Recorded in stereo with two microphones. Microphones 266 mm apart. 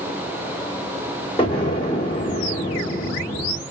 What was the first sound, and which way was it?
An explosion, 20° left (ahead or behind).